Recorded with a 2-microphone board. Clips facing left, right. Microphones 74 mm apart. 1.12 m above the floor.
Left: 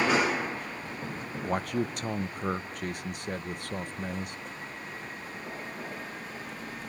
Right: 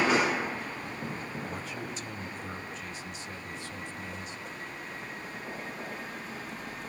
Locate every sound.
1.4 s a man speaking: 55° left (ahead or behind), 0.7 m